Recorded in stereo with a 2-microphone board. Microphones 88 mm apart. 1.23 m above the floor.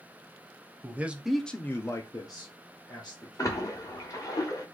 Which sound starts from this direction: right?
A man speaking, at 0.8 s.